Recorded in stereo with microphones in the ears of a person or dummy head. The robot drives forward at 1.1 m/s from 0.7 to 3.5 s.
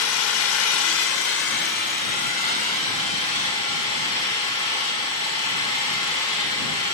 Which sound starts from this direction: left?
An engine running, at 0.0 s.